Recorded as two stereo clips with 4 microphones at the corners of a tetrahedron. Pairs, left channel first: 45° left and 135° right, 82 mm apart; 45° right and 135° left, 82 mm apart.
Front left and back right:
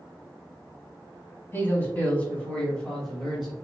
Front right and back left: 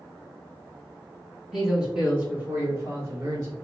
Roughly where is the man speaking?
Ahead left.